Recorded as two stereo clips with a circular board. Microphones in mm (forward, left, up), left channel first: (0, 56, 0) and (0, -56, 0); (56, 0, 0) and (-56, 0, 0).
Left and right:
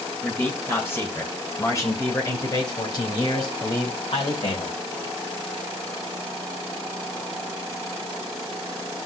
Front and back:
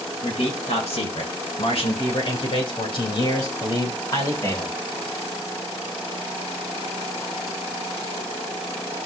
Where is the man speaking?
15° left, 5.5 m; by 4.8 s 60° left, 5 m.